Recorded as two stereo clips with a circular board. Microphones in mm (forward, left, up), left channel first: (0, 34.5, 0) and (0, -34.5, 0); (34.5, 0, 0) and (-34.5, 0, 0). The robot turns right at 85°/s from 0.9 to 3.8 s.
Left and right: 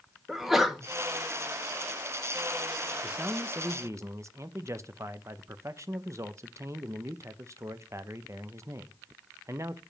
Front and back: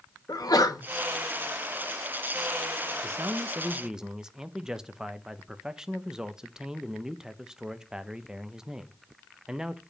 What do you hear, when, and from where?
0.3 s a sneeze: 5° right, 1.4 m
3.0 s a man speaking: 170° right, 0.6 m; by 9.8 s 105° right, 0.6 m